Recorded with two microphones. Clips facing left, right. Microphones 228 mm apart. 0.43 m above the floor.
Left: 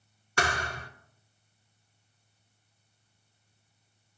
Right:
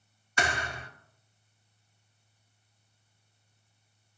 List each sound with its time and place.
0.4 s a thud: 65° left (ahead or behind), 0.9 m